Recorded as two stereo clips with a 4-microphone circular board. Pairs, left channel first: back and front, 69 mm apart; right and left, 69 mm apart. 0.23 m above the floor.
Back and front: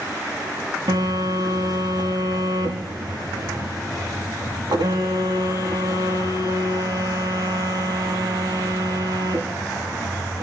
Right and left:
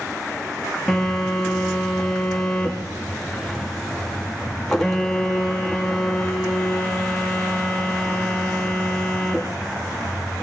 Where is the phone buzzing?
5° right, 6.5 m.